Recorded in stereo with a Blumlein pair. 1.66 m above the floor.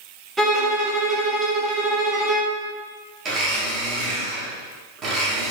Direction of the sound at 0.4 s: 15° right.